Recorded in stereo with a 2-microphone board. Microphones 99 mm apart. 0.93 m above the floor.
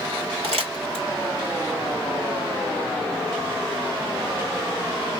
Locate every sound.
0.4 s crumpling: 80° right, 2 m